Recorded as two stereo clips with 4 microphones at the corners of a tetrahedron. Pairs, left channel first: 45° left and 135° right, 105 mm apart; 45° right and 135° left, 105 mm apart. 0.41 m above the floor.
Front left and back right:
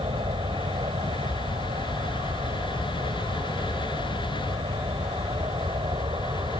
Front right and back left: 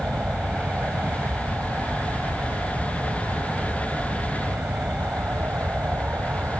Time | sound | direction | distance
0.0 | an aircraft | 145° right | ?